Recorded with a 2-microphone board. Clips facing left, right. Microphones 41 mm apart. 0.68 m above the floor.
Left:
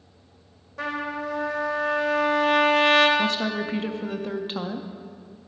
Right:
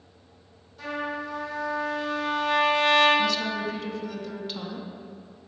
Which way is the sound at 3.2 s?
30° left (ahead or behind).